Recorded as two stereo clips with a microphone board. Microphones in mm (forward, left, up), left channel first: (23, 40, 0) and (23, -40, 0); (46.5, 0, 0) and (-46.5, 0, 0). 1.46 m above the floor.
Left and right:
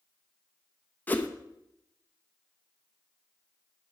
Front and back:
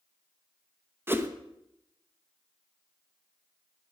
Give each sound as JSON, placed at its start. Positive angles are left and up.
{"t": 1.1, "sound": "a whoosh", "azimuth_deg": 140, "distance_m": 0.7}